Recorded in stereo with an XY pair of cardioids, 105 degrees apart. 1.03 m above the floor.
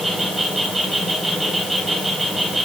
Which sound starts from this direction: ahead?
An insect, at 0.0 s.